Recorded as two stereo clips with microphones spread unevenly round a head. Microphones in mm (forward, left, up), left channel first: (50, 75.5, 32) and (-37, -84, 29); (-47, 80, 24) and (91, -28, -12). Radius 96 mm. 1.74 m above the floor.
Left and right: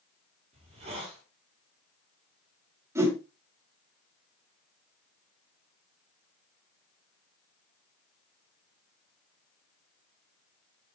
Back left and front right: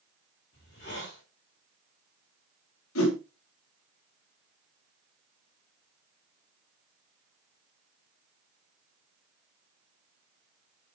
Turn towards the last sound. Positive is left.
turn(degrees=165)